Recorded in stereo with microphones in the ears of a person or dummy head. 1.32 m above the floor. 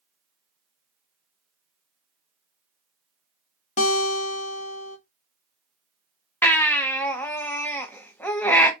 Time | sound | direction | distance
3.8 | a guitar | 40° left (ahead or behind) | 1.2 m
6.4 | a baby crying | 10° left (ahead or behind) | 0.9 m